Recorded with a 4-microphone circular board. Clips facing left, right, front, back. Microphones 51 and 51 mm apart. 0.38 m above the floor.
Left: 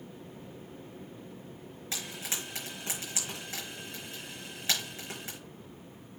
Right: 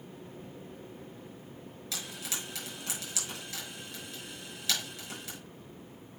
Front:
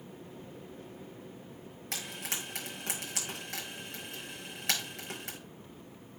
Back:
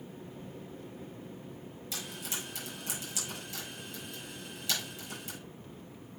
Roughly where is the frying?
Ahead left.